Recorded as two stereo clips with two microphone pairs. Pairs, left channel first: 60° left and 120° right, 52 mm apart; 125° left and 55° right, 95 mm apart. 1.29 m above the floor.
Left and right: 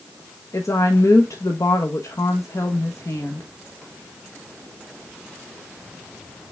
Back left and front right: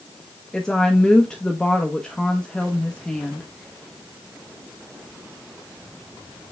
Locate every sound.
0.5 s a woman speaking: 45° left, 1.0 m